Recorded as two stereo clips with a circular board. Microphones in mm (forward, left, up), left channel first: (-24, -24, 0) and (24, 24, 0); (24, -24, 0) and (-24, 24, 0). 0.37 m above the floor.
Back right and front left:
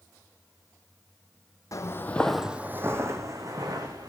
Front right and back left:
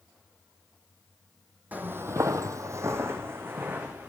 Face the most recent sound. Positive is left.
turn(degrees=75)